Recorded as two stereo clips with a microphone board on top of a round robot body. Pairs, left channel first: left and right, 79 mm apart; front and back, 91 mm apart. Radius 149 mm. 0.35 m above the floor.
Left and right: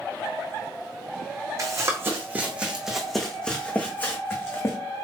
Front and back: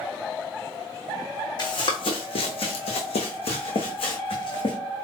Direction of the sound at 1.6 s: 40° right.